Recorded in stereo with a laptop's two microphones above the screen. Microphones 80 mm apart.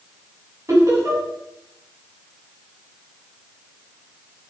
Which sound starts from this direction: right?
Laughter, at 0.7 s.